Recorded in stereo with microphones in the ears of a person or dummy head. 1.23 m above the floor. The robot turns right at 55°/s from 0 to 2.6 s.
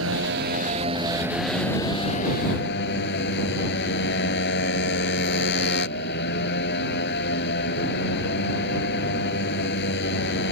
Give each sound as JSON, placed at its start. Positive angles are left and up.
{"t": 0.0, "sound": "a motorcycle", "azimuth_deg": -85}